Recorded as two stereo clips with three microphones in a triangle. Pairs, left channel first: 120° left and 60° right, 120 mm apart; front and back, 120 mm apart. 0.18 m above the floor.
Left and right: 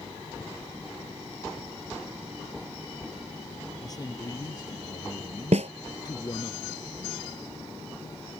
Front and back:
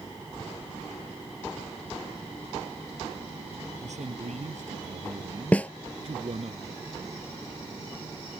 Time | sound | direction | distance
3.8 | a man speaking | 175° left | ?
5.5 | a snare drum | 80° right | ?